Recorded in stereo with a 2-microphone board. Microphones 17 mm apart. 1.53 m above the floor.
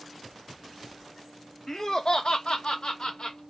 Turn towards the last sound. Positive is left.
turn(degrees=40)  # may be behind; listen again after turning